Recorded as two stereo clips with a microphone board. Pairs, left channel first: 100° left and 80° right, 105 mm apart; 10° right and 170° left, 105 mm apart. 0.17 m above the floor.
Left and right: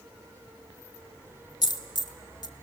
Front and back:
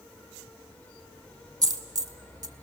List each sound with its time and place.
1.6 s a dropped coin: 130° left, 0.7 m